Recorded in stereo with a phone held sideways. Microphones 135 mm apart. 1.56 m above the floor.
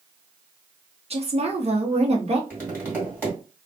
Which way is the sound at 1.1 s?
50° right (ahead or behind).